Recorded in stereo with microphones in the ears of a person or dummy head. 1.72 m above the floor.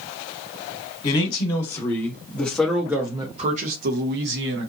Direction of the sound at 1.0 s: 35° left (ahead or behind).